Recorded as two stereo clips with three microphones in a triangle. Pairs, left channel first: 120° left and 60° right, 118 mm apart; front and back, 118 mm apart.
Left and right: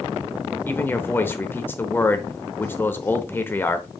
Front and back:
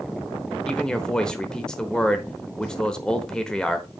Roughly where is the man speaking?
Left.